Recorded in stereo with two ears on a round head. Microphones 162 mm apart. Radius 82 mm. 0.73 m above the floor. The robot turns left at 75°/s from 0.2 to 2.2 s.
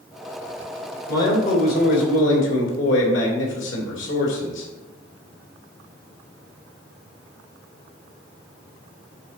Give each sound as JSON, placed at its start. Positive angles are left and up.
{"t": 1.1, "sound": "a man speaking", "azimuth_deg": 165, "distance_m": 2.5}